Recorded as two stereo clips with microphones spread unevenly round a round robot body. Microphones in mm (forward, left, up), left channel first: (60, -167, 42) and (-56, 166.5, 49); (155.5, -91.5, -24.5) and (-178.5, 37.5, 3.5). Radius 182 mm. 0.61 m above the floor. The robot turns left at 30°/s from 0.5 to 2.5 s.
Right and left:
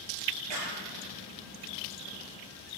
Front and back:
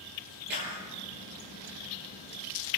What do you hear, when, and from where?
0.5 s a clap: 95° left, 9 m; by 0.8 s 85° left, 9 m